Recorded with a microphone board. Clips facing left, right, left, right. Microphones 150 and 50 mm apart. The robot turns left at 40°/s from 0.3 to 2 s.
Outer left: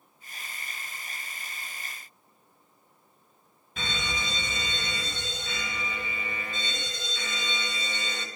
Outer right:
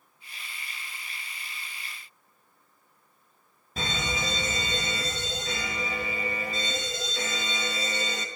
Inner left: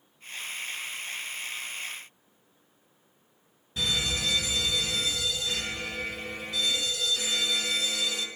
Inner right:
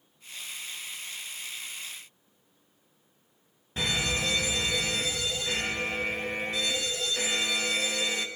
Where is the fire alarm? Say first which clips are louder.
Outer right 3 dB, inner right 1 dB; 35° right (ahead or behind), 2.5 m.